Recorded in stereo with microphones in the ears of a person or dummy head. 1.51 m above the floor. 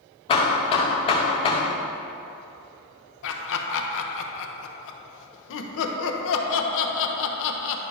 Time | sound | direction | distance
0.3 | hammering | 25° left (ahead or behind) | 0.8 m
3.2 | laughter | 70° left (ahead or behind) | 0.9 m